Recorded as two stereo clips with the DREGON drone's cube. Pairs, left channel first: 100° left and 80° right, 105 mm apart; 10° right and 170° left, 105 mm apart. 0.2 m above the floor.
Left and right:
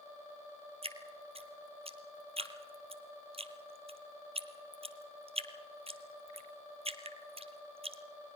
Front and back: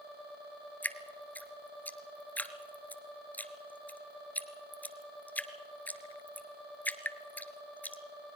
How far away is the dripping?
About 1.4 m.